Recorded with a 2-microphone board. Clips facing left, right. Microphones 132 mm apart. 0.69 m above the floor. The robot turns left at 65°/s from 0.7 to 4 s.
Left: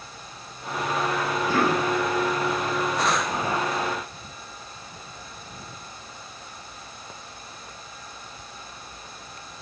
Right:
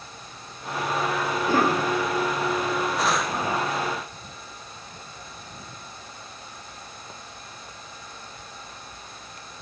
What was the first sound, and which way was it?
A cough, 50° right.